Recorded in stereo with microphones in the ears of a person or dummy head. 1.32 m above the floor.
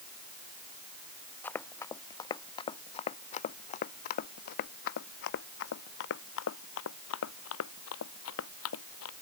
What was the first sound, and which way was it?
Running footsteps, 5° left (ahead or behind).